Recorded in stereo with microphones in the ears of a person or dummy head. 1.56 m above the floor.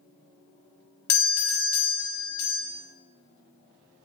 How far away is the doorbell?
About 0.9 m.